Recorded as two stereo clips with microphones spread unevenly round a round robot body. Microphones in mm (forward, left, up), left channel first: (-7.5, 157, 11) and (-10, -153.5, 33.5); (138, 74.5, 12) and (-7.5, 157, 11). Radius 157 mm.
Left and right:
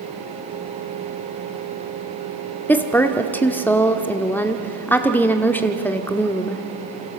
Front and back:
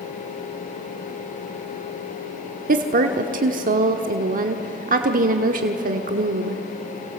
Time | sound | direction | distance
2.7 | a woman speaking | 170° left | 1.1 m